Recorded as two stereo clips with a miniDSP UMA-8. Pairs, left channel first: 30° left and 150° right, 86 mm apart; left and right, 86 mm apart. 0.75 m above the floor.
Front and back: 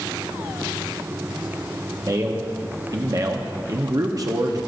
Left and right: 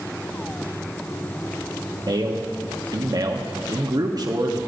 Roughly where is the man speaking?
Behind right.